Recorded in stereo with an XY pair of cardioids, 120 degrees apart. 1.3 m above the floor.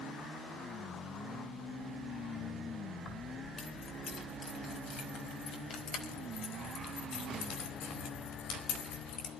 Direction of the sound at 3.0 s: 40° left.